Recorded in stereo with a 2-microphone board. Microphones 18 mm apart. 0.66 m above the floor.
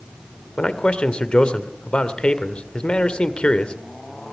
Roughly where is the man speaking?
Left.